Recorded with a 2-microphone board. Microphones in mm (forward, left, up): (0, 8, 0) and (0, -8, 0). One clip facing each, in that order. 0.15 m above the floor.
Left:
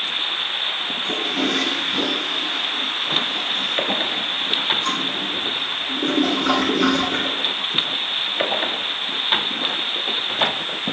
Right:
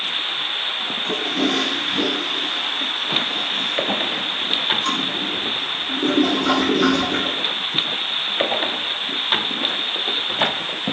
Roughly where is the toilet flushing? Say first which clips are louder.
Right 1 dB; centre.